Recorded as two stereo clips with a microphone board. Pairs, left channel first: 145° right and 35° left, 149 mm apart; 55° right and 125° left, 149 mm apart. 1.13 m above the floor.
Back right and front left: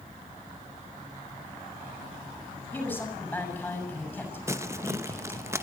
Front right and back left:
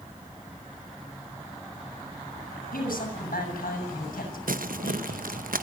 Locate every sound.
2.7 s a man speaking: 65° right, 7 m
4.5 s crumpling: 105° left, 0.8 m